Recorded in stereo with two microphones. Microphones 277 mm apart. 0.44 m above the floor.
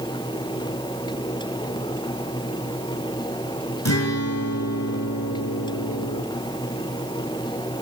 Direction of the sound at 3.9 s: 80° left.